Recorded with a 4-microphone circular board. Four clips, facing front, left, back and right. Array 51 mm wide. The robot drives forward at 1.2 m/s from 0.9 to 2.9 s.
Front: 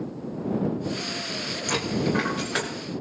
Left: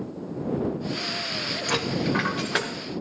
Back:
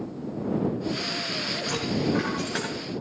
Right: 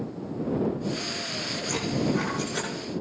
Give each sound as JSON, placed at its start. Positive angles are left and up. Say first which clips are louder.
{"t": 1.7, "sound": "a dropped coin", "louder": "left 1 dB, front 1 dB", "azimuth_deg": 65, "distance_m": 6.0}